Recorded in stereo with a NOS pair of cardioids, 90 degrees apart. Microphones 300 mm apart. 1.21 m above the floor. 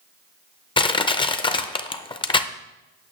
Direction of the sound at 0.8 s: 15° left.